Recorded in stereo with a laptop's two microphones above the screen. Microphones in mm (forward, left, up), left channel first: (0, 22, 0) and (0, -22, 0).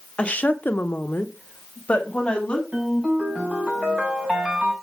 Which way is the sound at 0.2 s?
30° left (ahead or behind).